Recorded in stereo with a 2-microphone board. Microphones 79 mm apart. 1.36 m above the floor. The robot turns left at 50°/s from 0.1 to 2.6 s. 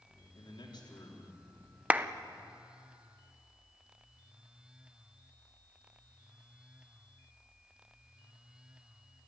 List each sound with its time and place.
0.3 s a man speaking: 90° left, 4 m; by 1.4 s 40° left, 4 m
1.9 s a clap: 20° right (ahead or behind), 0.6 m; by 2.1 s 30° right (ahead or behind), 0.6 m